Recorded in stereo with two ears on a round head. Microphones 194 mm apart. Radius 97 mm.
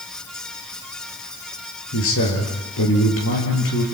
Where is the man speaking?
70° left (ahead or behind), 8.5 m.